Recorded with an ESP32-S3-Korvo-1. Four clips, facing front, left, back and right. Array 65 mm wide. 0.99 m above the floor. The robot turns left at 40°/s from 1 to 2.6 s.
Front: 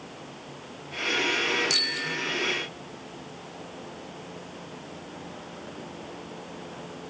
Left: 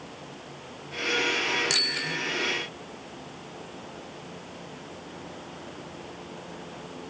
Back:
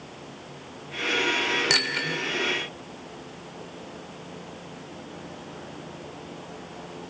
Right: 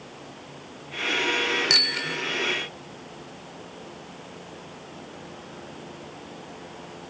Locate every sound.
1.7 s a bicycle bell: 165° right, 2.5 m; by 2.2 s 175° left, 2.5 m